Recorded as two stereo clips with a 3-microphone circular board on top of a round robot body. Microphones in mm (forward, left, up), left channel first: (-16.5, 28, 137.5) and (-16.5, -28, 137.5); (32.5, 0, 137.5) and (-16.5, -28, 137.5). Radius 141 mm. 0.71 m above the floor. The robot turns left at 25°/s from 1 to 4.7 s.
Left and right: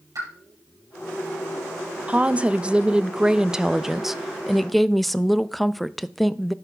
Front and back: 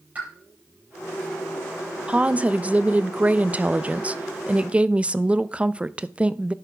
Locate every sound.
0.1 s a pop: 90° right, 6 m
2.1 s a woman speaking: 120° right, 0.6 m; by 6.5 s 175° left, 0.6 m